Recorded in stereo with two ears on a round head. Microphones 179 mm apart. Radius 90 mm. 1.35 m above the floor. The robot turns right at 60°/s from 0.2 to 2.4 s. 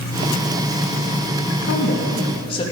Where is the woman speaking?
105° left, 2.5 m; by 2.6 s 155° left, 2.5 m.